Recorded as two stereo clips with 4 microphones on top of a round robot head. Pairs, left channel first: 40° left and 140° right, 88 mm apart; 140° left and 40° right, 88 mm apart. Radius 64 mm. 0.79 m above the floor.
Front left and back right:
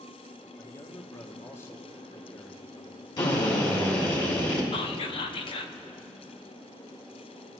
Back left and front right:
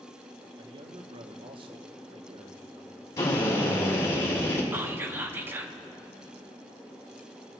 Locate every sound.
0.6 s a man speaking: 25° right, 1.1 m
3.2 s a drill: 85° left, 3 m
4.7 s whispering: 25° left, 1.0 m